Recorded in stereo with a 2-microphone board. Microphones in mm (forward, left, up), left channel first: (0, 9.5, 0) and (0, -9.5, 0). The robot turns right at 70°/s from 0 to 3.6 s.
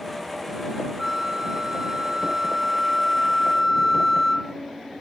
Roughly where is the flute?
Behind.